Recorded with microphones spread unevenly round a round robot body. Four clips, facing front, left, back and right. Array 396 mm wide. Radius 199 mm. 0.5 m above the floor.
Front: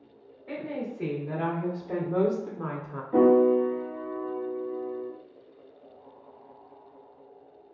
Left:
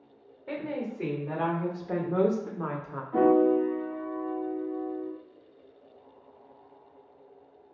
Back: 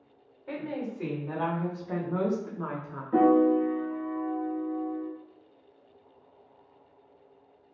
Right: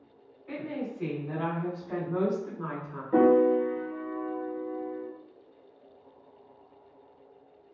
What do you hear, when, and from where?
0.5 s a woman speaking: 90° left, 1.9 m; by 3.0 s 45° left, 1.1 m
3.1 s a piano: 105° right, 1.5 m